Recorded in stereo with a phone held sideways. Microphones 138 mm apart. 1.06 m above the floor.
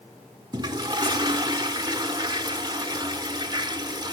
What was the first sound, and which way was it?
A toilet flushing, 30° right (ahead or behind).